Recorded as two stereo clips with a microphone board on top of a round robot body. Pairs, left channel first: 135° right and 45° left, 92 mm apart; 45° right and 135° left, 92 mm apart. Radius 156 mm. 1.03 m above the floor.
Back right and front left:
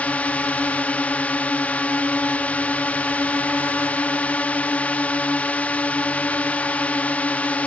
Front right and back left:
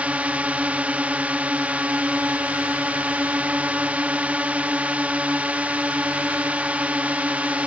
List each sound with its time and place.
0.0 s a drone: straight behind